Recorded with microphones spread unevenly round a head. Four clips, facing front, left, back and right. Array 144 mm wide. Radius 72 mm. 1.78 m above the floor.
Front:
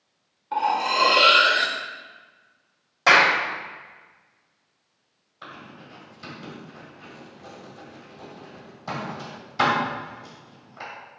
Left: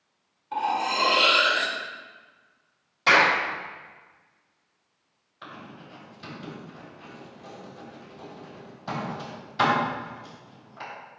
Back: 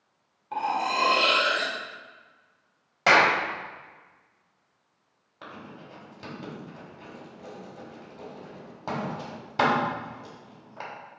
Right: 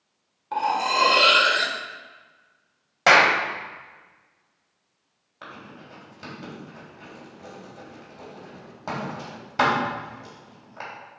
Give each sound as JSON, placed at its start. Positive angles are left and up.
{"t": 0.5, "sound": "cutlery clinking", "azimuth_deg": -65, "distance_m": 1.2}
{"t": 3.1, "sound": "a clap", "azimuth_deg": -95, "distance_m": 1.4}
{"t": 5.4, "sound": "writing", "azimuth_deg": -135, "distance_m": 3.0}